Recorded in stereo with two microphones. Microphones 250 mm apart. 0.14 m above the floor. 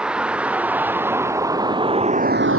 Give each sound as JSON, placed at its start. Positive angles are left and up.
{"t": 0.0, "sound": "a vehicle", "side_deg": -5}